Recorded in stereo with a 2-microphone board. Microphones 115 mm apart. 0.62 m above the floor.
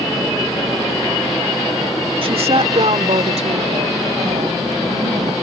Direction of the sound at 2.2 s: 50° right (ahead or behind).